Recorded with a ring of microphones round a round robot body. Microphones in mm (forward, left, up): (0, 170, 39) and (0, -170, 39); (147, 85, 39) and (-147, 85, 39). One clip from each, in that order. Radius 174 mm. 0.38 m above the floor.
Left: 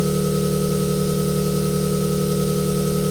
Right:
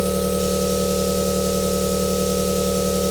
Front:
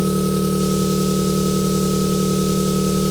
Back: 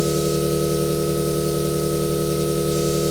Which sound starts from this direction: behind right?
An engine running, at 0.0 s.